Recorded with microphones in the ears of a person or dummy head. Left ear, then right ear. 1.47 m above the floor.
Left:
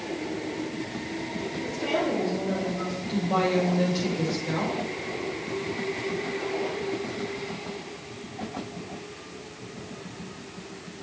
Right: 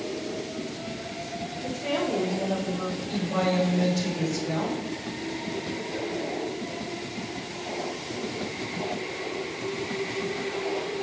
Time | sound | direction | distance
1.6 | a woman speaking | 90° left | 4.5 m
3.1 | a woman speaking | 50° left (ahead or behind) | 5.5 m